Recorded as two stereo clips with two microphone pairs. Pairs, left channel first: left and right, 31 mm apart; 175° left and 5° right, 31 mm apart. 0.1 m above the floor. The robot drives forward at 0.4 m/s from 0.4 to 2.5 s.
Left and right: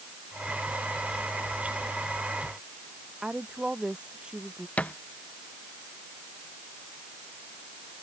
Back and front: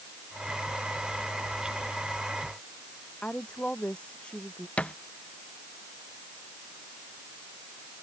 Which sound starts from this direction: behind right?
A woman speaking, at 3.2 s.